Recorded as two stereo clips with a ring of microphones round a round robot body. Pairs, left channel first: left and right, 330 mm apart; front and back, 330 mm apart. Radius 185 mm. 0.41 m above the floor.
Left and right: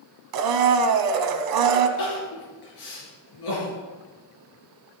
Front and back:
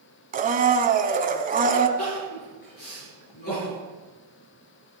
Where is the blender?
115° right, 1.1 m.